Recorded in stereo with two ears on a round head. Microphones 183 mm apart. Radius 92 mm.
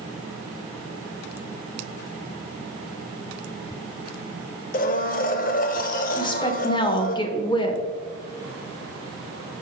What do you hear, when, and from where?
4.7 s a blender: 45° left (ahead or behind), 0.7 m
6.2 s a woman speaking: 25° left (ahead or behind), 0.8 m